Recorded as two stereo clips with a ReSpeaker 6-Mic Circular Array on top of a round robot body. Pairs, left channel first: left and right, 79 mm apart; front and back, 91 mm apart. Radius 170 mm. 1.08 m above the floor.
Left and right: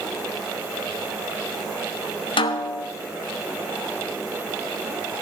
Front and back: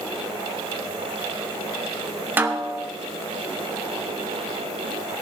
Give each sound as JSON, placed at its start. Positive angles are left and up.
{"t": 2.4, "sound": "a snare drum", "azimuth_deg": 110, "distance_m": 0.6}